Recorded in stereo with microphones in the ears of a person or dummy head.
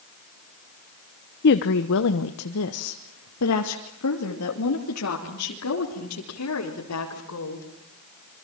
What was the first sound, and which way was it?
A woman speaking, 50° left (ahead or behind).